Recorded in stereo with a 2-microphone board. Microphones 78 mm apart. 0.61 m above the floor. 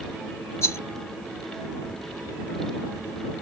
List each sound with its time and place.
0.6 s a rattle: 35° left (ahead or behind)